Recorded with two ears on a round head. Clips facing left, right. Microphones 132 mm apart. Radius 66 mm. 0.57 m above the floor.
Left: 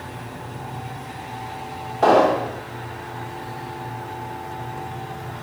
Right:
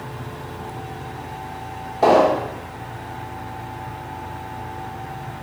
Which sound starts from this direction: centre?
An explosion, at 2.0 s.